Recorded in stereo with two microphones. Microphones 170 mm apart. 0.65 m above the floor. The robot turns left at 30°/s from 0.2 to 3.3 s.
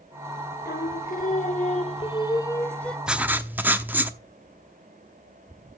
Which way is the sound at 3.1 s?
5° right (ahead or behind).